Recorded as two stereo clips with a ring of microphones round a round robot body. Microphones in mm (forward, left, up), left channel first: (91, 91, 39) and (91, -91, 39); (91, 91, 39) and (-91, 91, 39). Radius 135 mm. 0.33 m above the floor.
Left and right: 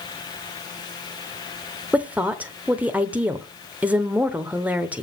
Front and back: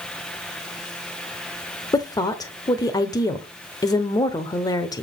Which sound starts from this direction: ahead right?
A woman speaking, at 1.9 s.